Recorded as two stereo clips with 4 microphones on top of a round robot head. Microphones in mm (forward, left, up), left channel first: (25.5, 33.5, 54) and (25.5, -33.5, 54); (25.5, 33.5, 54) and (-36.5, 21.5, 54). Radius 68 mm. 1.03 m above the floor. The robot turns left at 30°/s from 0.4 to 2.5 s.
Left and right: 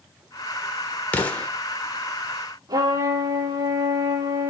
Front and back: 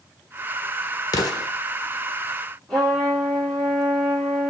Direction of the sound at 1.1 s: 25° left.